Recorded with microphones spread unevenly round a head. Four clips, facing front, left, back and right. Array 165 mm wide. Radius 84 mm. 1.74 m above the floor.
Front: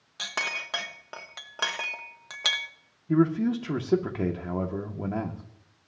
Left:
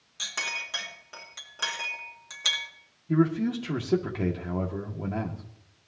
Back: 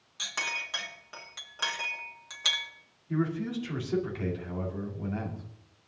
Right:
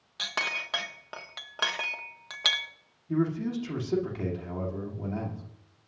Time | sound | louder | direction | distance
0.2 | a clink | right 3 dB, front 3 dB | 30° right | 1.3 m
3.1 | a man speaking | left 4 dB, front 8 dB | 20° left | 2.0 m